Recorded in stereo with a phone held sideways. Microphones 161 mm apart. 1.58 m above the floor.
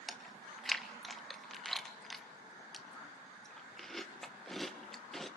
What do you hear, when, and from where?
0.1 s chewing: centre (ahead or behind), 1.7 m